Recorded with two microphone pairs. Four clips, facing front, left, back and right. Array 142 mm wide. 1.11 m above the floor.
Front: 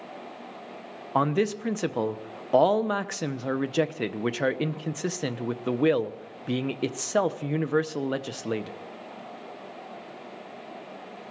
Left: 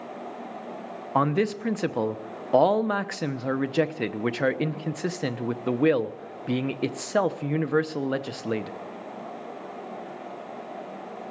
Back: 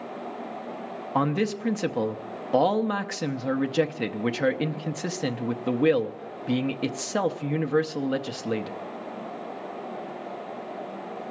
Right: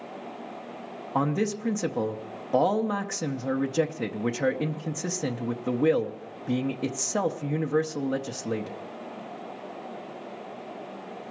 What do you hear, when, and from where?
1.1 s a man speaking: 40° left, 0.7 m